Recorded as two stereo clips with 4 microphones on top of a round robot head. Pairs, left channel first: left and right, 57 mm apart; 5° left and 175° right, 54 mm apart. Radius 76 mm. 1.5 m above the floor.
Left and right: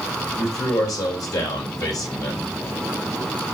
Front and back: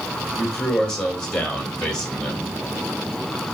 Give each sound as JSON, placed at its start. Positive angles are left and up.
{"t": 0.4, "sound": "a man speaking", "azimuth_deg": 75, "distance_m": 3.0}